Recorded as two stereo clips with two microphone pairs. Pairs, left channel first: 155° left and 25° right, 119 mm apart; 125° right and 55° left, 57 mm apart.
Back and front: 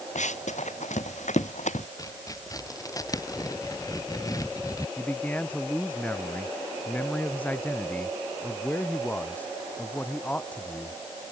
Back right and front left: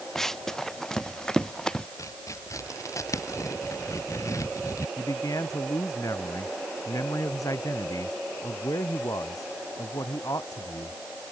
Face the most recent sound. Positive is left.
turn(degrees=-130)